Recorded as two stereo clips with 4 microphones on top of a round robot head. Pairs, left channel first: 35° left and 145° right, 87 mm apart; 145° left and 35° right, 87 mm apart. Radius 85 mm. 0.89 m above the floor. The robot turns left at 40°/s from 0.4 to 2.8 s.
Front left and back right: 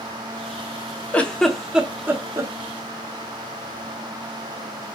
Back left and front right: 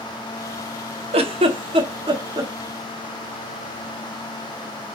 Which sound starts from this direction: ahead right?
A giggle, at 1.1 s.